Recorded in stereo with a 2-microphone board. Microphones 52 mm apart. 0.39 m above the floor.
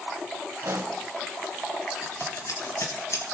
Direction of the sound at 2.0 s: 80° left.